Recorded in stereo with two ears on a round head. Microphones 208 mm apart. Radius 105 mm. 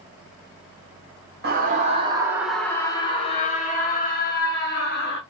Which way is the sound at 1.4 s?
45° right (ahead or behind).